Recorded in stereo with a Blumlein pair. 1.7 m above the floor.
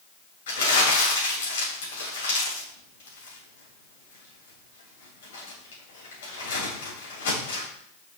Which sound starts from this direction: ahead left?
Crumpling, at 0.5 s.